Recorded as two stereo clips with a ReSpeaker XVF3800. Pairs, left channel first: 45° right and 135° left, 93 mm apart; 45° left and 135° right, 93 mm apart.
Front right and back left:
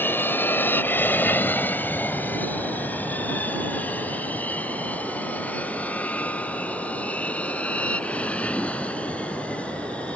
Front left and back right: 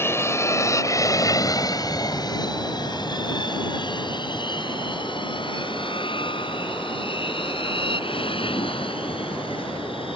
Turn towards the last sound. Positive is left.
turn(degrees=30)